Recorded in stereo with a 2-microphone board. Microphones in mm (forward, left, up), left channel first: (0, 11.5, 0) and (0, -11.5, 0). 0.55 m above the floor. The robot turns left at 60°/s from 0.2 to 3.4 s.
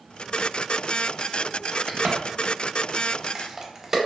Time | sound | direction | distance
1.9 | a crack | 55° right (ahead or behind) | 0.6 m